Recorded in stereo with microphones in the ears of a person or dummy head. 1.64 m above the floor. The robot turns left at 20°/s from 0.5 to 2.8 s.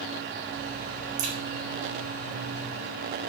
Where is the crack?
40° right (ahead or behind), 0.7 m; by 1.3 s 35° right (ahead or behind), 0.7 m.